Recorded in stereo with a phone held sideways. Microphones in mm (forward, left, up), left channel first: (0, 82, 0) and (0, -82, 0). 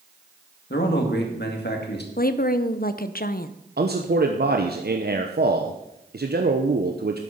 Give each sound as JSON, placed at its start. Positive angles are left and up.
{"t": 0.7, "sound": "a man speaking", "side_deg": 75, "distance_m": 2.0}
{"t": 2.2, "sound": "a woman speaking", "side_deg": 60, "distance_m": 0.6}
{"t": 3.8, "sound": "a man speaking", "side_deg": -65, "distance_m": 0.9}